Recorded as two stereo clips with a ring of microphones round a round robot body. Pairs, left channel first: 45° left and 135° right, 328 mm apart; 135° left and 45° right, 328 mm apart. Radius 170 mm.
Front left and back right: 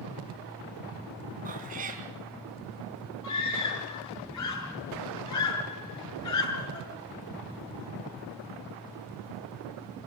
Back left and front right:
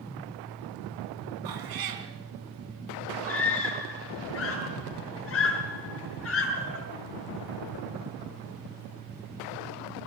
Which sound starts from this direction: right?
A cat meowing, at 1.4 s.